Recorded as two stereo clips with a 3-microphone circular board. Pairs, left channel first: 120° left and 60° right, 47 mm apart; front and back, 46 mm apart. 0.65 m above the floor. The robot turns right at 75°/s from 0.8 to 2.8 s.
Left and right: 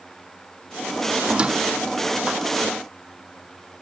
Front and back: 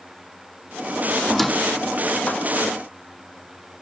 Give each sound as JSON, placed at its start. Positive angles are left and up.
{"t": 1.2, "sound": "a squeak", "azimuth_deg": -100, "distance_m": 0.6}